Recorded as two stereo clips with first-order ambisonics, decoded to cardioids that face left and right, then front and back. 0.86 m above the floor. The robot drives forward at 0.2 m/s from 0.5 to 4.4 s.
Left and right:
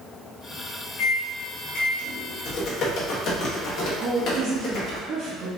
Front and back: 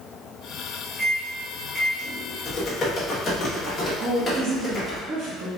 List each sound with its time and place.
1.0 s a microwave: 100° left, 1.5 m; by 2.4 s 110° left, 1.5 m
2.5 s typing on a keyboard: 60° left, 1.4 m; by 5.0 s 85° left, 1.3 m
4.0 s a woman speaking: 155° right, 0.8 m